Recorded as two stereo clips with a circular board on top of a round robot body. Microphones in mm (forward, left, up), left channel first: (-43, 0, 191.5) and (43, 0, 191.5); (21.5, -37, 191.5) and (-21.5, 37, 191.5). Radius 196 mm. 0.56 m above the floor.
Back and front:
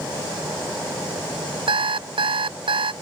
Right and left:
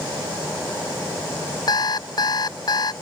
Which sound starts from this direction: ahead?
An alarm clock, at 1.7 s.